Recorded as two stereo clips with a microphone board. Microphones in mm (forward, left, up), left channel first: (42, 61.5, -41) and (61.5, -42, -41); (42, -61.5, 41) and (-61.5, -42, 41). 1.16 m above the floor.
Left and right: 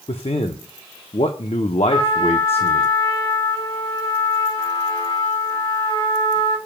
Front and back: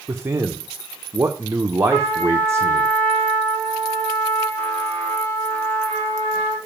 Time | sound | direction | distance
0.1 | a man speaking | 105° left | 0.7 m
1.9 | a trumpet | 60° left | 2.5 m